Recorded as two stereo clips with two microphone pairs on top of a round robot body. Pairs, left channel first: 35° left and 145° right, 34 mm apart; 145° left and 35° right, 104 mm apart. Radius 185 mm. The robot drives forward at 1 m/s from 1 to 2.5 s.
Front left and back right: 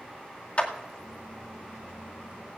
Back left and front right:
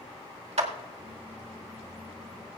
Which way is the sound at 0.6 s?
20° right.